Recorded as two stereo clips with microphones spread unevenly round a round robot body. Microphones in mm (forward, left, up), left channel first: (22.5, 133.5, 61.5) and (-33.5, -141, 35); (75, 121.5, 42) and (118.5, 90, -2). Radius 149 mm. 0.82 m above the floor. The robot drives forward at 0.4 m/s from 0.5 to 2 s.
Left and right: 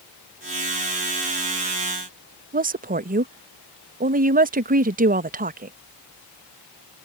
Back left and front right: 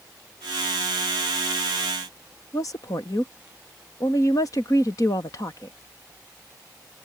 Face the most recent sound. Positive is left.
turn(degrees=-140)